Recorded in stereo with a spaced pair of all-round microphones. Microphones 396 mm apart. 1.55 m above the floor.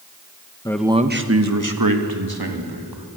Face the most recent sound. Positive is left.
turn(degrees=-75)  # may be behind; listen again after turning